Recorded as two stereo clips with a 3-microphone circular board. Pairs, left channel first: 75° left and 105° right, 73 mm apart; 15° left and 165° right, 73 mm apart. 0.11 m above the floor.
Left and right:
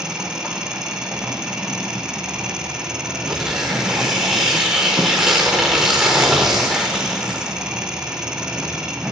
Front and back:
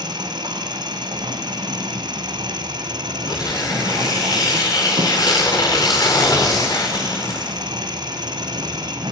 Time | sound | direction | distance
0.0 | an engine running | 175° left | 3.5 m
3.3 | tearing paper | 20° right | 7 m